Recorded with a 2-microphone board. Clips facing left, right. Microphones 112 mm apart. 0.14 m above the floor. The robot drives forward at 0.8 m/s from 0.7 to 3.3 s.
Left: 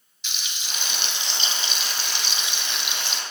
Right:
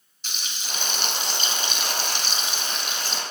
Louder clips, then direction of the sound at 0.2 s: Right 1 dB; 40° right (ahead or behind).